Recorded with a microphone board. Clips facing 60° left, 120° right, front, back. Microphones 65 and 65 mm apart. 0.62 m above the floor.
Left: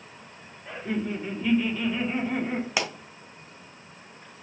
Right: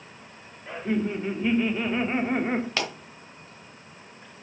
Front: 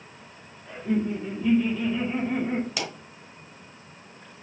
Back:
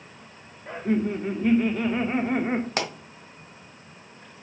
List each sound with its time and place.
0.7 s laughter: 160° left, 1.9 m; by 2.7 s 155° right, 1.8 m
2.8 s a pop: 135° left, 1.3 m